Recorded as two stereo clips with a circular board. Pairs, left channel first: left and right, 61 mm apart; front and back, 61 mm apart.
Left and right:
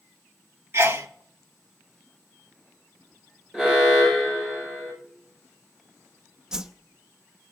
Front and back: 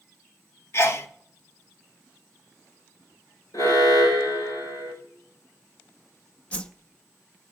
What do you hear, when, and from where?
0.7 s a sneeze: 45° right, 1.4 m
3.5 s an alarm: 10° right, 5 m
6.5 s a whoosh: 30° right, 0.7 m